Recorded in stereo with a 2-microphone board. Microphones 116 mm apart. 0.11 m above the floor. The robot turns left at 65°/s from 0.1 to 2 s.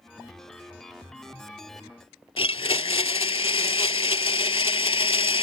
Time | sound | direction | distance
2.4 | a blender | 50° left (ahead or behind) | ?